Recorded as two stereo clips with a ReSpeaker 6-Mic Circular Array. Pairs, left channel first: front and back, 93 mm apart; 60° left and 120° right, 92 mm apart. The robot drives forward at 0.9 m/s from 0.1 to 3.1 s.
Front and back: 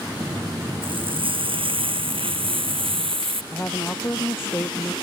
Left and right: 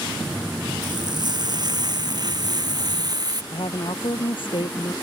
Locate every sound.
0.8 s frying: 160° right; by 3.4 s 165° right
3.5 s a woman speaking: 65° left